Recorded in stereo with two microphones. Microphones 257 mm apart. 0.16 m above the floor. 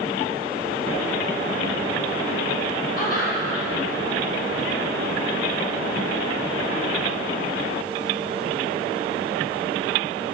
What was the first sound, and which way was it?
Laughter, 35° left (ahead or behind).